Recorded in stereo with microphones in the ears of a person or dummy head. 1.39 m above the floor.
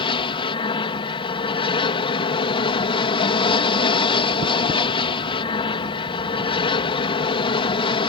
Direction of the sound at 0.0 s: 20° left (ahead or behind).